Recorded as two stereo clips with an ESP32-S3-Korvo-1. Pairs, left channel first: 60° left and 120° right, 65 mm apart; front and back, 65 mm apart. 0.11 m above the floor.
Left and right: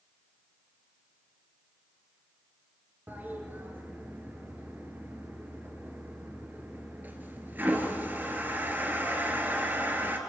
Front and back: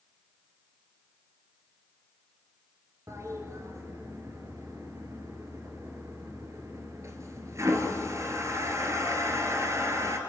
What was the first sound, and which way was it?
A toilet flushing, 170° right.